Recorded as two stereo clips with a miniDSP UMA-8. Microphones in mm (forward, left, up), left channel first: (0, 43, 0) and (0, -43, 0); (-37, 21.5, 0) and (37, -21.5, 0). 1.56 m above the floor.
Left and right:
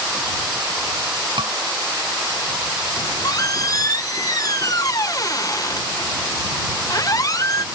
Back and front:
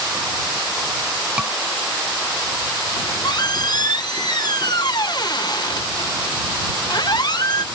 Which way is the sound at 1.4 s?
110° right.